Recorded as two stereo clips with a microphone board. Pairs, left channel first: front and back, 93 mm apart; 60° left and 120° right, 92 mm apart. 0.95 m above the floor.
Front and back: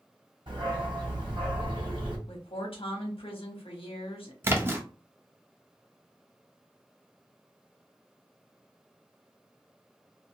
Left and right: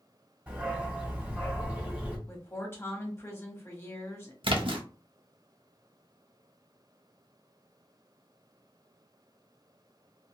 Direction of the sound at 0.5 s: 165° left.